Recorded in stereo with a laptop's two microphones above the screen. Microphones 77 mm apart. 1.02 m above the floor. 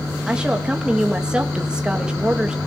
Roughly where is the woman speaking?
Centre.